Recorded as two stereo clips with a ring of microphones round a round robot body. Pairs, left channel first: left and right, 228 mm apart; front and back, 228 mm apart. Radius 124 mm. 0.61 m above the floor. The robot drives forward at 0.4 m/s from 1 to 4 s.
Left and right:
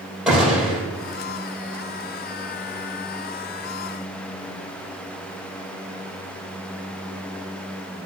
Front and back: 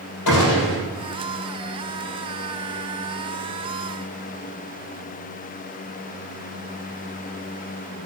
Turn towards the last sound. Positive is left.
turn(degrees=-5)